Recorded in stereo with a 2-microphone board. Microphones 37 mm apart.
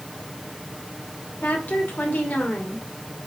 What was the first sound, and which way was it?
A woman speaking, 55° left (ahead or behind).